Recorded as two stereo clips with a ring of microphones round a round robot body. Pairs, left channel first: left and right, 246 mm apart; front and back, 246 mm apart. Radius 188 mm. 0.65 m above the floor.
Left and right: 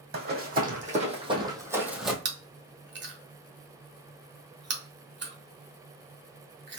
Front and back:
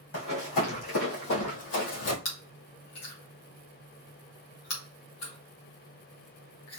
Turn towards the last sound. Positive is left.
turn(degrees=-45)